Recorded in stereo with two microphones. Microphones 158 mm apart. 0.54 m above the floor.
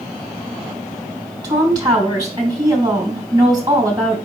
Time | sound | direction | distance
1.4 | a woman speaking | 25° right (ahead or behind) | 3 m